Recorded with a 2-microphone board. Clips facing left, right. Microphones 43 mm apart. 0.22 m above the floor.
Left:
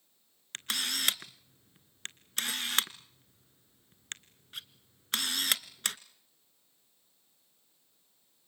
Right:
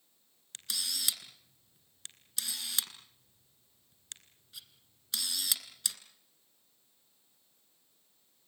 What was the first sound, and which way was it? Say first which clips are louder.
A camera shutter: left 5 dB; 55° left (ahead or behind).